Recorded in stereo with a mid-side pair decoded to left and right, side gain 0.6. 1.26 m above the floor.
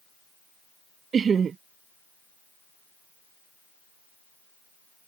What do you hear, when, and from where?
1.1 s laughter: 40° right